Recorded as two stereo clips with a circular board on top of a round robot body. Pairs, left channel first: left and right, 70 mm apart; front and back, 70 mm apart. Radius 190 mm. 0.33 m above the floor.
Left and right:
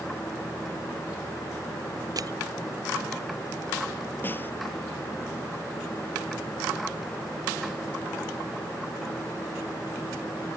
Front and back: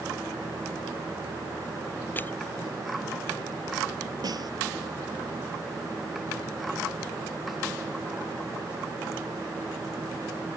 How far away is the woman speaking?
No woman speaking in this recording.